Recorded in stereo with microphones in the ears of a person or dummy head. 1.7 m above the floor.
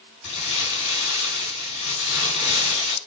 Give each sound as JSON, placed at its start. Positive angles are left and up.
{"t": 0.2, "sound": "crumpling", "side_deg": 35, "distance_m": 5.0}